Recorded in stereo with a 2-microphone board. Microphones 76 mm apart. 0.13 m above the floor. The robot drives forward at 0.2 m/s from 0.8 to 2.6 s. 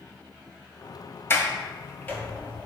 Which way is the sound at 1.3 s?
30° left (ahead or behind).